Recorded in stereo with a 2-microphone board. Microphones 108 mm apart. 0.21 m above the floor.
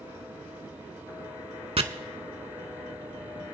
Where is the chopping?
65° right (ahead or behind), 0.7 m.